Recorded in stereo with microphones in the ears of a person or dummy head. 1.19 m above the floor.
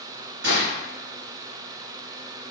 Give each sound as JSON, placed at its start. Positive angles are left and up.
{"t": 0.4, "sound": "a gunshot", "side_deg": -75, "distance_m": 4.0}